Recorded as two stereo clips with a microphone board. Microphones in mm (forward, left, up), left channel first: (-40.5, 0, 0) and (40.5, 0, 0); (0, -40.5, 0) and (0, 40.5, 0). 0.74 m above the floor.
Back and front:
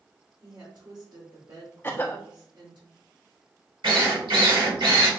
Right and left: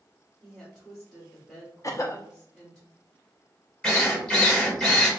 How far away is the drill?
About 1.9 m.